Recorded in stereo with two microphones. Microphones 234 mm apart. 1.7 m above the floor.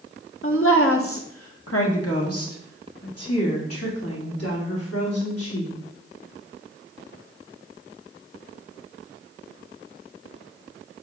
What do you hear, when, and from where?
0.4 s a woman speaking: 60° left (ahead or behind), 1.1 m; by 5.8 s 85° left, 5 m